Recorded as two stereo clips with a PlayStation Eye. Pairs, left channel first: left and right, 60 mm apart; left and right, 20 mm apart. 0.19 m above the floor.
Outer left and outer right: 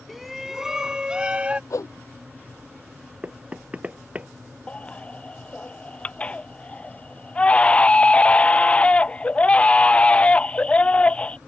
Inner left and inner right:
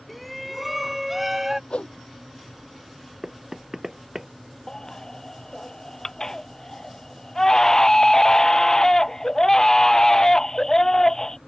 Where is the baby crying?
20° left (ahead or behind).